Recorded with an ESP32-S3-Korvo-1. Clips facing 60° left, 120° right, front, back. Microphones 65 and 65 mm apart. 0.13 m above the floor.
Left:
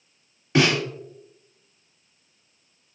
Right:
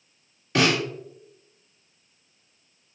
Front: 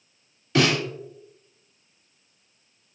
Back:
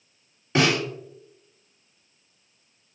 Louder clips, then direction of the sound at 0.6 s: Left 1 dB, even; 130° left.